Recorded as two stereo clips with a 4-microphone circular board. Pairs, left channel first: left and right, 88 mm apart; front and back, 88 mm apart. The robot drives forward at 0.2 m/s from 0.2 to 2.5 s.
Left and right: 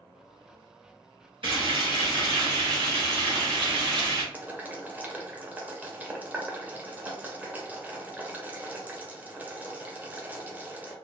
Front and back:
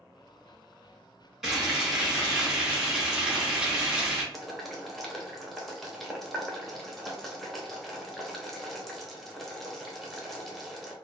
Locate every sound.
1.4 s frying: 90° right, 1.9 m; by 4.2 s 100° right, 1.9 m
4.3 s boiling: 85° right, 0.7 m